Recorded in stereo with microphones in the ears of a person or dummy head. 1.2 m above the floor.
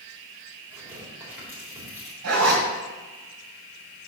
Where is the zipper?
65° right (ahead or behind), 2.5 m.